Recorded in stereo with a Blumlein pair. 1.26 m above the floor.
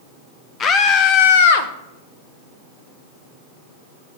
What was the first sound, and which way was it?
A scream, 25° left.